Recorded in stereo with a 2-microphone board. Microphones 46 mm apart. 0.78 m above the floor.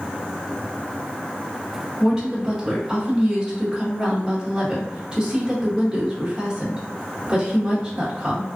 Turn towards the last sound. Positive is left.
turn(degrees=-15)  # may be behind; listen again after turning